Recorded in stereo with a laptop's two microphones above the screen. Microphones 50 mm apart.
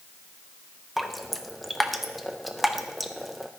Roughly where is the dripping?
Centre.